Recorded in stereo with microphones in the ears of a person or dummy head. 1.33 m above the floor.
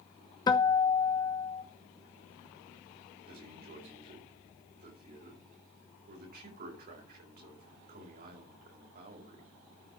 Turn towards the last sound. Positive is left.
turn(degrees=-45)  # may be behind; listen again after turning